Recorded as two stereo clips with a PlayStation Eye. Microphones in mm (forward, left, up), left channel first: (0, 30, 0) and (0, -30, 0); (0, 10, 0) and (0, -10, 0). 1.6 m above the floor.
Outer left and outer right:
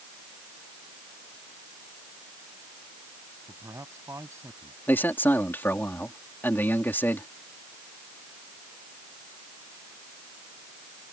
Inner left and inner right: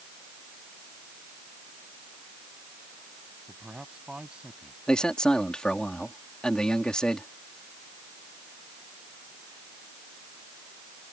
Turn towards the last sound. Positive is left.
turn(degrees=35)  # may be behind; listen again after turning